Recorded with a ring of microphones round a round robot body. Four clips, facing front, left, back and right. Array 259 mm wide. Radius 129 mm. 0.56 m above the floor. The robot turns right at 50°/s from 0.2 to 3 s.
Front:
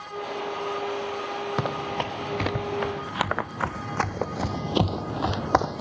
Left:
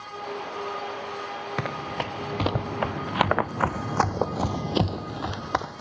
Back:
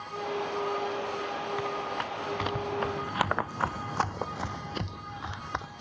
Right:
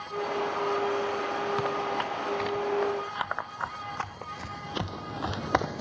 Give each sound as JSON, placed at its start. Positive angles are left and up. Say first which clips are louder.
{"t": 1.6, "sound": "running footsteps", "louder": "right 2 dB, front 4 dB", "azimuth_deg": 20}